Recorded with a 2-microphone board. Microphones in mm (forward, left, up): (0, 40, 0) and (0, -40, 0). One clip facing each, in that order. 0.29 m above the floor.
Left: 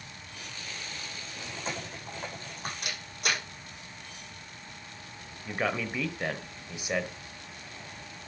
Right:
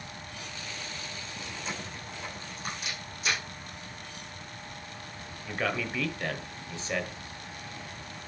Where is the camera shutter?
60° left (ahead or behind), 6 m.